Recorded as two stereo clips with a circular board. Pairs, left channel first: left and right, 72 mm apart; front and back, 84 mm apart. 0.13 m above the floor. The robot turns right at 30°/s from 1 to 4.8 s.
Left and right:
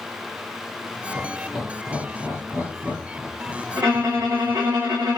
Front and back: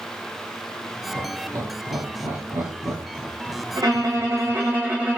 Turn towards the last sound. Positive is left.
turn(degrees=-110)